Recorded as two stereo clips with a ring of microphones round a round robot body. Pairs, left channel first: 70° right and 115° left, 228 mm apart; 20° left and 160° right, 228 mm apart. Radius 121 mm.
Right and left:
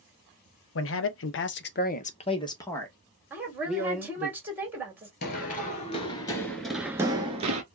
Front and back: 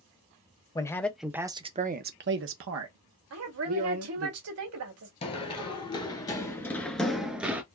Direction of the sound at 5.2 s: 35° right.